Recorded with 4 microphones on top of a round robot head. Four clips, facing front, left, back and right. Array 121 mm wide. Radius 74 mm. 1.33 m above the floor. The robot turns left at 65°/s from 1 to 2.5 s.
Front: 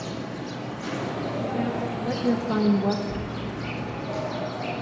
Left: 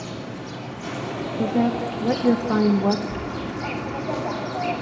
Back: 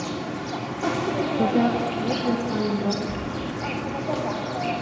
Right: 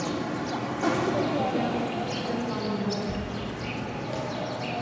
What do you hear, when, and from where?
0.0 s an insect: 125° right, 3 m; by 4.8 s 135° left, 3 m
1.4 s a woman speaking: 150° left, 1.0 m; by 3.0 s 75° left, 1.0 m
3.1 s a dropped coin: 155° right, 10 m